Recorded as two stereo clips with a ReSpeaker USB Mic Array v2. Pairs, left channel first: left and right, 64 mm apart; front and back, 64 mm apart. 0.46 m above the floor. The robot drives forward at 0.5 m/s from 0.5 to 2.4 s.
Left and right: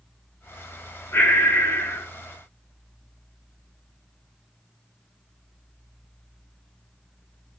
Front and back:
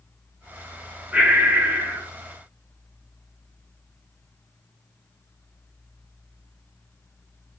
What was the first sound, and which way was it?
Breathing, 115° left.